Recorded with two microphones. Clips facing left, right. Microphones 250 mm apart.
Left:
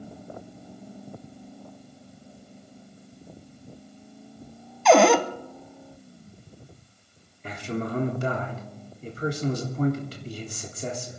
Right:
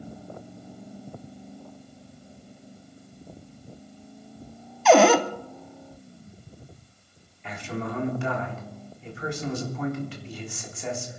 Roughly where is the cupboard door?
Centre.